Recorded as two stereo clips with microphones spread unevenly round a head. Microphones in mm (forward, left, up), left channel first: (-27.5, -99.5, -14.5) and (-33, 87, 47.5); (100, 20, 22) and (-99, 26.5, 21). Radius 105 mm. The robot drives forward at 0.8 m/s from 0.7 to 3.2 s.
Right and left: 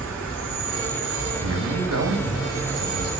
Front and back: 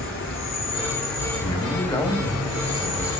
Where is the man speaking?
60° left, 2.5 m; by 3.1 s 95° left, 2 m.